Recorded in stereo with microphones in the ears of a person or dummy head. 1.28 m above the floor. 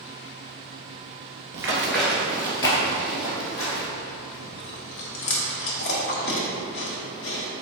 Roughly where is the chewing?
Left.